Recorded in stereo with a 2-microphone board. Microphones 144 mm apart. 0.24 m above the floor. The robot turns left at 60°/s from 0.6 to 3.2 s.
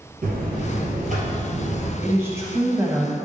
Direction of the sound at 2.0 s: 15° right (ahead or behind).